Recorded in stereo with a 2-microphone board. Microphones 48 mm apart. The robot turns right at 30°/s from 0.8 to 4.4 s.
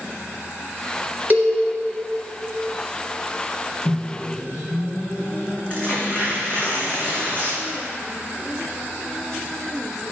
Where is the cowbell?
40° right (ahead or behind), 2 m; by 1.6 s 35° right (ahead or behind), 2 m.